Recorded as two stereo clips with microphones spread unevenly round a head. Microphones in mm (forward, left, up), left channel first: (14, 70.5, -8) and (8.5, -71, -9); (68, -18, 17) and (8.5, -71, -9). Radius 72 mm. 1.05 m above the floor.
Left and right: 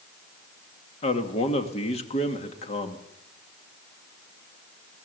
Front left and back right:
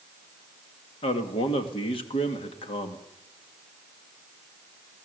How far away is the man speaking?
About 2 m.